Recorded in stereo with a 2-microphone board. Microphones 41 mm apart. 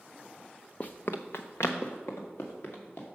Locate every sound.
0.8 s running footsteps: 35° left (ahead or behind), 0.6 m; by 3.0 s 65° left (ahead or behind), 2.5 m